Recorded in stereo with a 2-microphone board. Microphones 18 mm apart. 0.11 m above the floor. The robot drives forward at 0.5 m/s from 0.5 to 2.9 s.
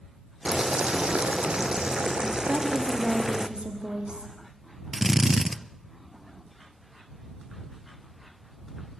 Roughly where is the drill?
Centre.